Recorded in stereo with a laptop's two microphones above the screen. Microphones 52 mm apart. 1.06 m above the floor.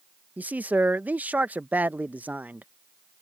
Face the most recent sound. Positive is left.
turn(degrees=-30)  # may be behind; listen again after turning